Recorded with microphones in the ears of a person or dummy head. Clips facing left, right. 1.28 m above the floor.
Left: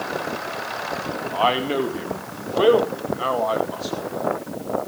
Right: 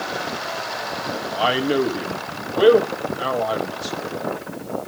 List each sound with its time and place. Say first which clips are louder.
1.3 s a man speaking: right 2 dB; 15° right (ahead or behind), 2 m